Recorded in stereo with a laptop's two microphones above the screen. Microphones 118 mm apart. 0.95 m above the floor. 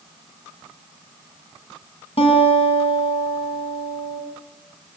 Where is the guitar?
55° left (ahead or behind), 6.5 m.